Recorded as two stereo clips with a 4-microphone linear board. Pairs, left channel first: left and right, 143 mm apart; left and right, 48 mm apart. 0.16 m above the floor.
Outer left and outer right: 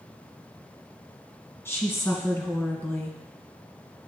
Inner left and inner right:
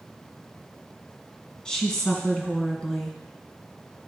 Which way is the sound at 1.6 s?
15° left (ahead or behind).